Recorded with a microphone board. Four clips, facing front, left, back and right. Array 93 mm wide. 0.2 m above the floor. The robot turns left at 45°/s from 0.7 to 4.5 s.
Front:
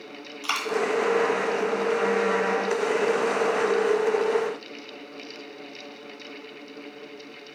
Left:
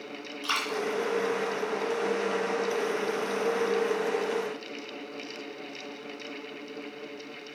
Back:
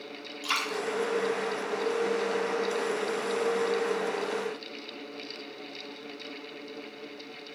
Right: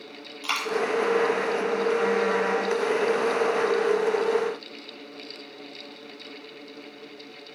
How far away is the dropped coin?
About 1.1 m.